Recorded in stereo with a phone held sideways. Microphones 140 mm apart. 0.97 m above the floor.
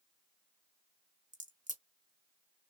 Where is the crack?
65° right (ahead or behind), 1.1 m.